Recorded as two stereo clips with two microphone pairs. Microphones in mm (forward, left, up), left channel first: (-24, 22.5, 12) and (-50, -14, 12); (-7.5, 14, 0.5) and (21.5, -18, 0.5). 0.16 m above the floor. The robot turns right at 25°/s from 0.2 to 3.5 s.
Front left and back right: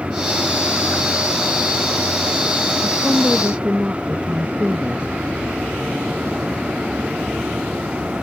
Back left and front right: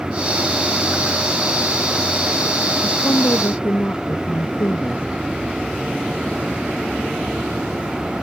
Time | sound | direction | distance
2.8 | a woman speaking | 150° left | ?